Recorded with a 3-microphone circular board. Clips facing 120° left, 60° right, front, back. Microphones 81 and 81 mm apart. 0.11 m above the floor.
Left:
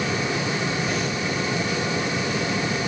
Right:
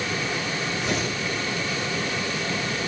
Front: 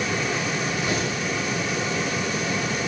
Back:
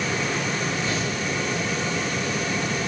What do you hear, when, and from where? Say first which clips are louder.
0.8 s tearing paper: left 1 dB, front 1 dB; 75° right, 7 m